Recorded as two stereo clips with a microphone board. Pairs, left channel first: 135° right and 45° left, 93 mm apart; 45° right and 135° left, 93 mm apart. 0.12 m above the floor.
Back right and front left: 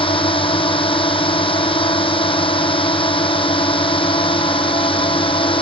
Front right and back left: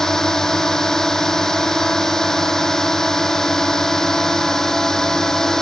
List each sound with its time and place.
0.0 s a drone: 130° right